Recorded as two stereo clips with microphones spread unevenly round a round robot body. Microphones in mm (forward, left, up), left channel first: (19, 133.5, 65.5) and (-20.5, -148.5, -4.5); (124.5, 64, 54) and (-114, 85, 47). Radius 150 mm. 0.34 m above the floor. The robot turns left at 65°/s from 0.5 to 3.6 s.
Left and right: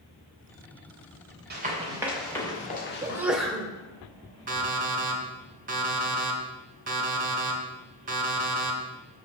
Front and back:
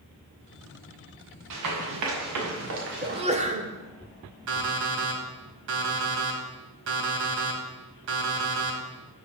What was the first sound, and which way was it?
Running footsteps, 155° right.